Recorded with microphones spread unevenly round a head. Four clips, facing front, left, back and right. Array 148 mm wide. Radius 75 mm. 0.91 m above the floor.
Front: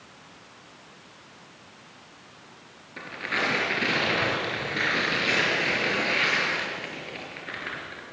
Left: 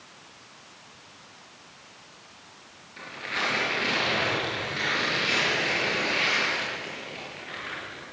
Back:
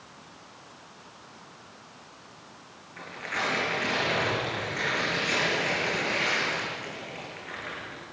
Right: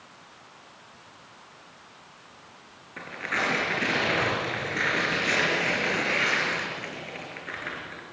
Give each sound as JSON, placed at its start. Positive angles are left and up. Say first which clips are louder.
{"t": 3.0, "sound": "tearing paper", "louder": "right 2 dB, front 3 dB", "azimuth_deg": -35, "distance_m": 6.0}